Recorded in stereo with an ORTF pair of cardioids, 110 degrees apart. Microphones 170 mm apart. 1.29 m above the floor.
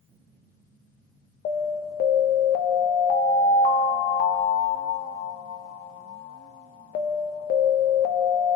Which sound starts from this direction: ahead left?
An alarm, at 1.4 s.